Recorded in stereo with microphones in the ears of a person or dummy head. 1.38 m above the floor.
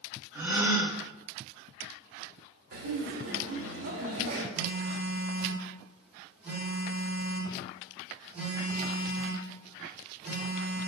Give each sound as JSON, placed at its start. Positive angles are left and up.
{"t": 0.3, "sound": "a gasp", "side_deg": -20, "distance_m": 0.5}
{"t": 2.7, "sound": "laughter", "side_deg": -75, "distance_m": 1.1}
{"t": 4.5, "sound": "a phone buzzing", "side_deg": -5, "distance_m": 1.2}